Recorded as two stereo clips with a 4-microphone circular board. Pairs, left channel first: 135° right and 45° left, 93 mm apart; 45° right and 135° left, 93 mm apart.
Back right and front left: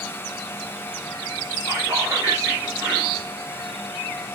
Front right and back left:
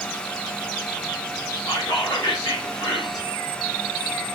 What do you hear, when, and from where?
1.7 s whispering: 5° right, 2.5 m